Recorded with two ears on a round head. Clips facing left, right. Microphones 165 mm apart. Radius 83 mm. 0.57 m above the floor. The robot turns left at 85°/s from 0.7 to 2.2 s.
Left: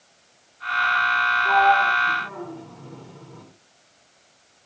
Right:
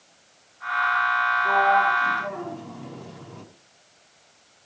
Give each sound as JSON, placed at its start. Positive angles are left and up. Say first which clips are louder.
{"t": 1.4, "sound": "a sliding door", "louder": "left 2 dB", "side_deg": -30, "distance_m": 5.0}